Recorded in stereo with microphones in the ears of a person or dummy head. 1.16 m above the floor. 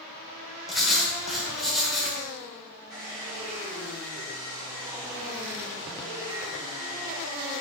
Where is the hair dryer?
20° right (ahead or behind), 2.5 m.